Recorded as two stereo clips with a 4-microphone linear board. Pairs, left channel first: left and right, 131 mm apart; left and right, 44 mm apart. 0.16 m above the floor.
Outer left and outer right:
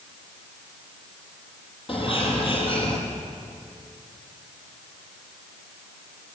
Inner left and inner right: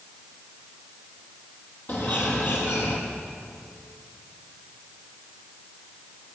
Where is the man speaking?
I don't hear a man speaking.